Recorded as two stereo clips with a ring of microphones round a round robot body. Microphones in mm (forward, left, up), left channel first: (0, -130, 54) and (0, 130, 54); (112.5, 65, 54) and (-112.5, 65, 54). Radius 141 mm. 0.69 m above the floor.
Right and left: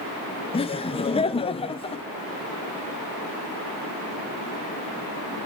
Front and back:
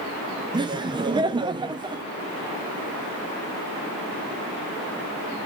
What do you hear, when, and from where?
0.5 s laughter: 135° right, 0.5 m